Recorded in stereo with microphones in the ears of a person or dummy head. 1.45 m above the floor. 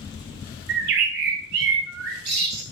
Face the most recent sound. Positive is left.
turn(degrees=-55)  # may be behind; listen again after turning